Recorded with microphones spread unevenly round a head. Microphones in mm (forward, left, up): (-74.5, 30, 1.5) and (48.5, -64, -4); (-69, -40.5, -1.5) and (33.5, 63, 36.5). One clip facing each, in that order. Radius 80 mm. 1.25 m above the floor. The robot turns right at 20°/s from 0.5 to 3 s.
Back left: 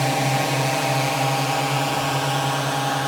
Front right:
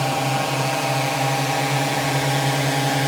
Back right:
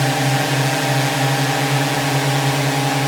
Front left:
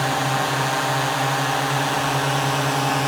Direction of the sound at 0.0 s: 135° right.